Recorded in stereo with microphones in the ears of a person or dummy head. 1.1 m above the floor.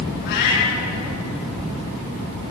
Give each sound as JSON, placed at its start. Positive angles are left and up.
{"t": 0.2, "sound": "a cat meowing", "side_deg": 60, "distance_m": 6.0}